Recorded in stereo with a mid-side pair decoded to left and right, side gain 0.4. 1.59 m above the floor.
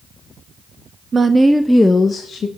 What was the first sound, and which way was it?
A woman speaking, 40° right.